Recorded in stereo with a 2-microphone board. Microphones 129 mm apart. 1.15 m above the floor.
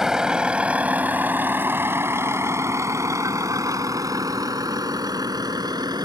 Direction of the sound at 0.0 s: 5° right (ahead or behind).